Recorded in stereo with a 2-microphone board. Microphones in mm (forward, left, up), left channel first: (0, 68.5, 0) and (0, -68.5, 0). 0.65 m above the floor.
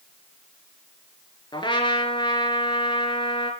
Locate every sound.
1.5 s a trumpet: 35° left (ahead or behind), 3 m